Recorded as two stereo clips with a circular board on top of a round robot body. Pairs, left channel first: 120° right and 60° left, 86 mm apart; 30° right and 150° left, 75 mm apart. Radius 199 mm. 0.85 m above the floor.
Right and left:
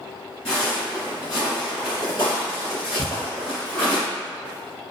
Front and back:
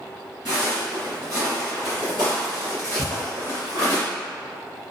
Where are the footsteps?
175° left, 1.5 m; by 4.0 s 50° right, 1.2 m.